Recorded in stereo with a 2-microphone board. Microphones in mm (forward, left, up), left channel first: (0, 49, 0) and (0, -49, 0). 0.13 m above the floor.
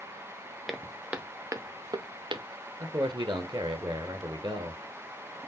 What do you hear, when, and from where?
0.7 s footsteps: centre (ahead or behind), 1.5 m; by 2.5 s 65° right (ahead or behind), 1.5 m
2.8 s a man speaking: 50° right (ahead or behind), 2.0 m